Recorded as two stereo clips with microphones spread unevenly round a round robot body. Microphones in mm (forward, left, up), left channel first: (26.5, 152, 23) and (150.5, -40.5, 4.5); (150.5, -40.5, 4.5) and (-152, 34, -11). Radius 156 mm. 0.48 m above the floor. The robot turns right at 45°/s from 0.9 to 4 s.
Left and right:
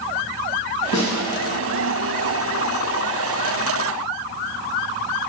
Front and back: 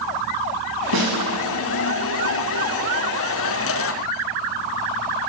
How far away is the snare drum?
About 1.6 m.